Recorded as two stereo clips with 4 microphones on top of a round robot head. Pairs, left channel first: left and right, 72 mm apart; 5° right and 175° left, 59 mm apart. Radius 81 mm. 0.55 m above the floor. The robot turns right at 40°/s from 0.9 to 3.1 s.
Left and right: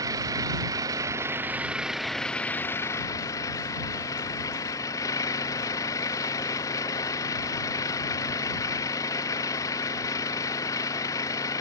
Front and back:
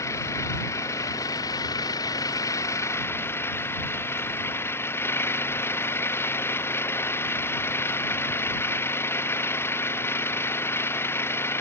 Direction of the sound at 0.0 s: 45° right.